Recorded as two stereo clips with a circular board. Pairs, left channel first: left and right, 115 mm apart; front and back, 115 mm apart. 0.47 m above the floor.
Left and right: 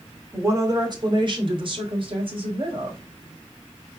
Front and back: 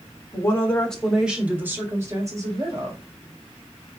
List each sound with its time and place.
0.3 s a woman speaking: 35° right, 1.3 m; by 3.0 s 130° right, 3 m